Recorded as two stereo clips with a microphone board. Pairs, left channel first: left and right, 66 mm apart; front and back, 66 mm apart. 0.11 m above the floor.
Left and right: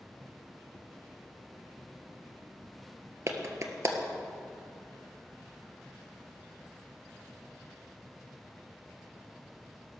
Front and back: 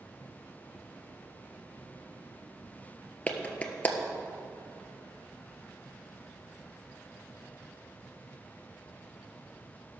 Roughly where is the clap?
Ahead right.